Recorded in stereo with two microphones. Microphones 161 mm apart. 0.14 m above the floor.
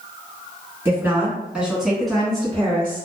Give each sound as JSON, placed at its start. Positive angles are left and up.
{"t": 0.8, "sound": "a woman speaking", "side_deg": -15, "distance_m": 1.5}